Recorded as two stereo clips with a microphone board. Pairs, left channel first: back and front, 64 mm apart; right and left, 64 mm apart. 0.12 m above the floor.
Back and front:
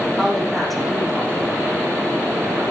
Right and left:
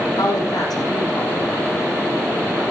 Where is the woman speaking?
90° right, 5.5 m.